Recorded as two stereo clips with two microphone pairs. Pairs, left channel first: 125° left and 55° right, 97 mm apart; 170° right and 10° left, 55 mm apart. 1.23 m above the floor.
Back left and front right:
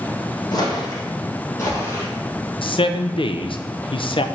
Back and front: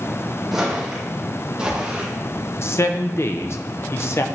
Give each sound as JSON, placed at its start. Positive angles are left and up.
{"t": 0.5, "sound": "footsteps", "azimuth_deg": 90, "distance_m": 2.5}
{"t": 2.6, "sound": "a man speaking", "azimuth_deg": 150, "distance_m": 0.6}